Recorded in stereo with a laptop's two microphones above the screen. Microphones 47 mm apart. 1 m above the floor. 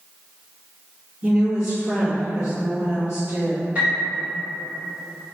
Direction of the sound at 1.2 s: 35° right (ahead or behind).